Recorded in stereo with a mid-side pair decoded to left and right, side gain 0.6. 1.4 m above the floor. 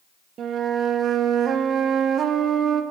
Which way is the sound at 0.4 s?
45° right.